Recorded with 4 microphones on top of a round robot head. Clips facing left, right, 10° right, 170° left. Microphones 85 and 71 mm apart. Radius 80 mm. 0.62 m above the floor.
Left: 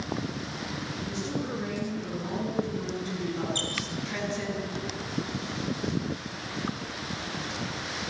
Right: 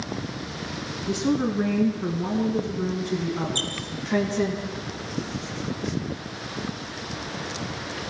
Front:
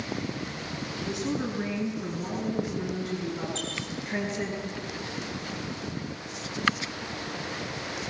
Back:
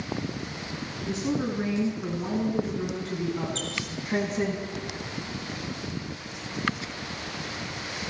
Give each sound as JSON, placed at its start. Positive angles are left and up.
{"t": 1.1, "sound": "a woman speaking", "azimuth_deg": -115, "distance_m": 6.5}
{"t": 3.5, "sound": "a squeak", "azimuth_deg": -135, "distance_m": 8.0}